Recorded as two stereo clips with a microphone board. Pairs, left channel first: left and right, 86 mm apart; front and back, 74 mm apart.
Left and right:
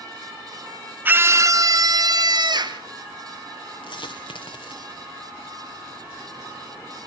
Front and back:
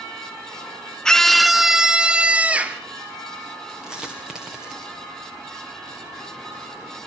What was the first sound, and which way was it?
A scream, 70° right.